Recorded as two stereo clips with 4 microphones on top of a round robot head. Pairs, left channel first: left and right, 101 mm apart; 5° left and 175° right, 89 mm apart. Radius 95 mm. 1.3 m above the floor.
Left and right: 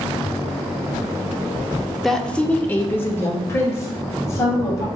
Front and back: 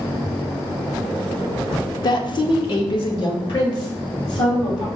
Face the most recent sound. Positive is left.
turn(degrees=35)